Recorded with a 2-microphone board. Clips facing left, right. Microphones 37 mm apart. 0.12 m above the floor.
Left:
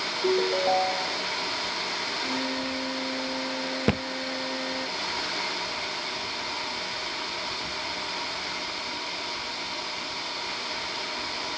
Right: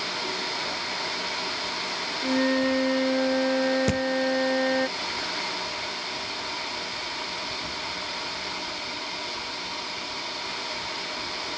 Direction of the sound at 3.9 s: 25° left (ahead or behind).